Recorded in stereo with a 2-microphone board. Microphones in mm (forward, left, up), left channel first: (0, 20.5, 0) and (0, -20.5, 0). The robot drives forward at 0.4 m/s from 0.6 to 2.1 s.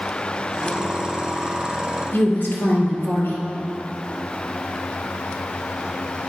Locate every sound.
2.1 s a woman speaking: 55° left (ahead or behind), 2.0 m